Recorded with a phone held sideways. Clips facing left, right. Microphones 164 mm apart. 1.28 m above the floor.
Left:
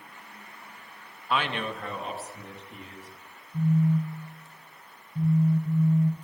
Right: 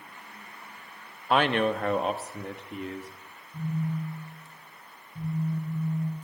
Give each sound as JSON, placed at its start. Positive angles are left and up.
{"t": 1.3, "sound": "a man speaking", "side_deg": -55, "distance_m": 1.5}
{"t": 3.5, "sound": "a phone buzzing", "side_deg": 60, "distance_m": 1.6}